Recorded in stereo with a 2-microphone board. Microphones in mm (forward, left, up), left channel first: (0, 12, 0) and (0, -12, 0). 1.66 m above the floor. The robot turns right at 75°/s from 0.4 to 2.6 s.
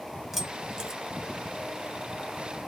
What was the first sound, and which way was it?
Keys jangling, 15° right (ahead or behind).